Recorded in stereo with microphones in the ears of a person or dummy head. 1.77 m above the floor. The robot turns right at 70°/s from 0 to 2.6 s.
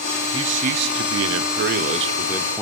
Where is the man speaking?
150° right, 0.9 m; by 2.6 s 10° left, 0.9 m.